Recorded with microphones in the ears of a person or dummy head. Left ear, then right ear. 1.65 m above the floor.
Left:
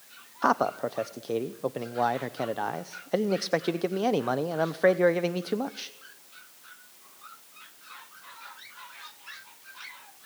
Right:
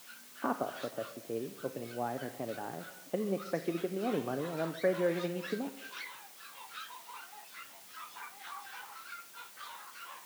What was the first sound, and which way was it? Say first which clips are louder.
A man speaking: left 10 dB; 65° left (ahead or behind).